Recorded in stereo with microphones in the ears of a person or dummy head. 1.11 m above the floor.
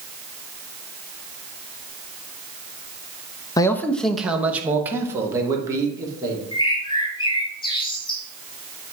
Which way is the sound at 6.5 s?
25° left (ahead or behind).